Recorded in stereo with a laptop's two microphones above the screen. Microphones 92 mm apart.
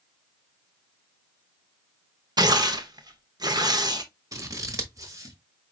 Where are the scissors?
40° right (ahead or behind), 1.1 m.